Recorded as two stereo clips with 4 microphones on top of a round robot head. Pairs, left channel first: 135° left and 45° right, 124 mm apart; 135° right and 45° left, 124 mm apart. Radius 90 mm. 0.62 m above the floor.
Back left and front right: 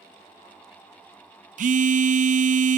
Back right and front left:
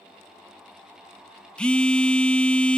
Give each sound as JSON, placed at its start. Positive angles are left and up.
{"t": 1.6, "sound": "a phone buzzing", "azimuth_deg": -50, "distance_m": 0.6}